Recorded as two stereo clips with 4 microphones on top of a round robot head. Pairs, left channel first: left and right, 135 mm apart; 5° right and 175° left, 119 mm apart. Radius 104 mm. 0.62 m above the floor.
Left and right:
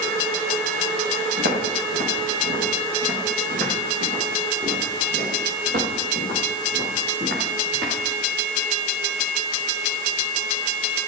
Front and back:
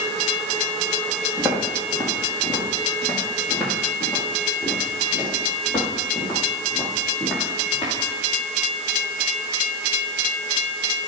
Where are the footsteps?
105° right, 5 m; by 7.9 s 85° right, 9 m.